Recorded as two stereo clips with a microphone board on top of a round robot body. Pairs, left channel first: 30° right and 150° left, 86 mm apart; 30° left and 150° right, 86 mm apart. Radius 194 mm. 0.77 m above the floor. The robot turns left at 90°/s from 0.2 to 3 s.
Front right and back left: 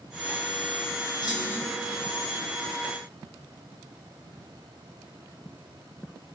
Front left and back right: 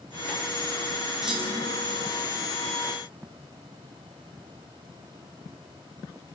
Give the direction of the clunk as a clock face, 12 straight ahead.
2 o'clock.